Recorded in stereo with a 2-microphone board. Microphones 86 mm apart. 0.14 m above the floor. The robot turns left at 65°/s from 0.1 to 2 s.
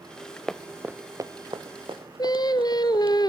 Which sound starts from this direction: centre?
Running footsteps, at 0.5 s.